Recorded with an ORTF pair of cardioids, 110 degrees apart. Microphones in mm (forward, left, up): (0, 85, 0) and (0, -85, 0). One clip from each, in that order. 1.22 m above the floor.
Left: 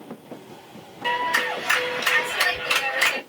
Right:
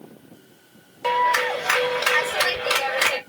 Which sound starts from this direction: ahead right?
A clap, at 1.0 s.